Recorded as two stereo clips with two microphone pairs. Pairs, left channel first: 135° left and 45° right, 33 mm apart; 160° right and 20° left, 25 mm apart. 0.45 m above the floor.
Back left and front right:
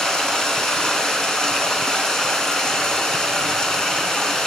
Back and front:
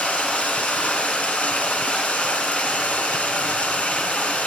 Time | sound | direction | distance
0.0 | running water | 155° right | 2.5 m